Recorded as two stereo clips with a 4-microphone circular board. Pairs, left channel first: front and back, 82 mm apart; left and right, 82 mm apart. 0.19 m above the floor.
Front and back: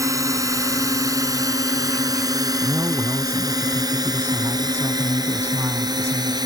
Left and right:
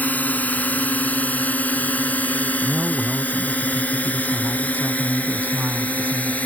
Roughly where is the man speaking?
Behind right.